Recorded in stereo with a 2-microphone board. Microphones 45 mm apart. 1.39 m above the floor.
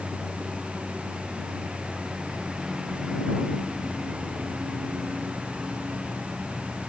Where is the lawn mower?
15° right (ahead or behind).